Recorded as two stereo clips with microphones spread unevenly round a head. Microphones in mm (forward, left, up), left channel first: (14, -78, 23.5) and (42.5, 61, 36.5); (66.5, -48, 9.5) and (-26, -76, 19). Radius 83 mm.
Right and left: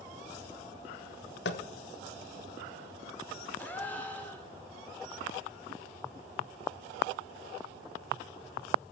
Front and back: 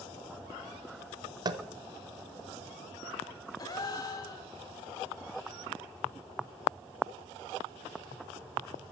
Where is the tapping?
125° right, 0.8 m.